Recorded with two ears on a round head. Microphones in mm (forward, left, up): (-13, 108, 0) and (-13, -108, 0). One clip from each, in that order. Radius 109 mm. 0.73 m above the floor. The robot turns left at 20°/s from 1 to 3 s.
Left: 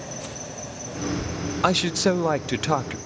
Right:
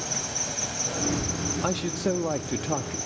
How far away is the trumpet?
I don't hear a trumpet.